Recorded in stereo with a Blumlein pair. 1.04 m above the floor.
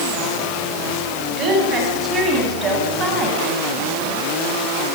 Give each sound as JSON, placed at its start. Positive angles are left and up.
{"t": 1.3, "sound": "a woman speaking", "azimuth_deg": -30, "distance_m": 10.0}